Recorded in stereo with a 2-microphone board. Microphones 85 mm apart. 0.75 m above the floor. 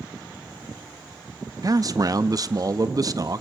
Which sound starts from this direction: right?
A man speaking, at 1.6 s.